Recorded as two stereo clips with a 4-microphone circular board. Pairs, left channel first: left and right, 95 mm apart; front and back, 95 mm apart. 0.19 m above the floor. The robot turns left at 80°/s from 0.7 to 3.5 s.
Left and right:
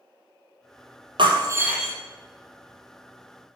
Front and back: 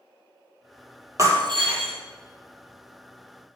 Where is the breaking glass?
125° right, 1.8 m; by 1.9 s 175° left, 1.8 m.